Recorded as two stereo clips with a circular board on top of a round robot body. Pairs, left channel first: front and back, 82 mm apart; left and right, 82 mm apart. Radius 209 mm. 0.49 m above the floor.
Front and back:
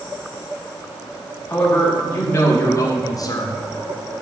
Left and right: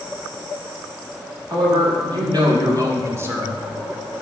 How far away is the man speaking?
About 2.5 m.